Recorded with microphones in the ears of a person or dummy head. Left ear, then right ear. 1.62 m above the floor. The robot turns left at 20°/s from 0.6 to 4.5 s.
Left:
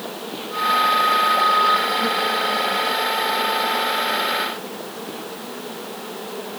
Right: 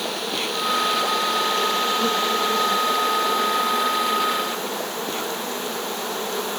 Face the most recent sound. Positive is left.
turn(degrees=-115)